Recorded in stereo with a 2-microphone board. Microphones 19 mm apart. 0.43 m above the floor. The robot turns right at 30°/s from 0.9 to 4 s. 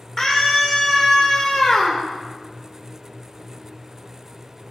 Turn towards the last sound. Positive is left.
turn(degrees=125)